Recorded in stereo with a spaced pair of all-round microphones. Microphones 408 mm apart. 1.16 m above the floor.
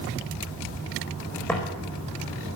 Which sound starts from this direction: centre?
Footsteps, at 1.5 s.